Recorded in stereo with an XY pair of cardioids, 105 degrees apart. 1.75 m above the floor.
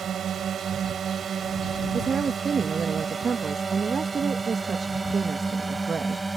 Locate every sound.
0.0 s a drone: 55° right; by 6.4 s 15° right
1.9 s a woman speaking: 40° right